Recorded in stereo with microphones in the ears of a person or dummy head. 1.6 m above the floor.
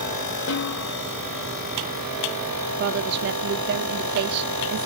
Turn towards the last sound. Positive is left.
turn(degrees=-60)  # may be behind; listen again after turning